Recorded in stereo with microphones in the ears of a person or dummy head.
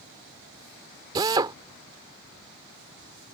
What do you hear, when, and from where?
1.1 s a drill: 20° right (ahead or behind)